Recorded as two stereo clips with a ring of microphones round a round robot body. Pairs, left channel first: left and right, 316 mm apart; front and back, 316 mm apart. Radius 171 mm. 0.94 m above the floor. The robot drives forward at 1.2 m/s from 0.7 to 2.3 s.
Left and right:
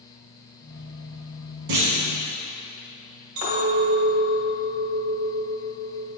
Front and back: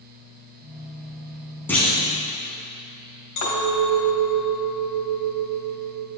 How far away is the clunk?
About 1.8 m.